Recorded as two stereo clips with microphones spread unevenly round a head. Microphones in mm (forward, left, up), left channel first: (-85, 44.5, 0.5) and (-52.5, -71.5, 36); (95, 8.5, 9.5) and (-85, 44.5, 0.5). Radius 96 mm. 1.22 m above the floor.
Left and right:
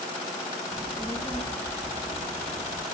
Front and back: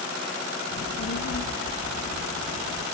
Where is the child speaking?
10° left, 0.9 m; by 2.8 s 5° right, 1.9 m.